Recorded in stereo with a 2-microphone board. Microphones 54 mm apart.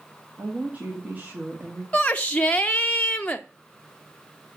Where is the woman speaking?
30° right (ahead or behind), 2 m.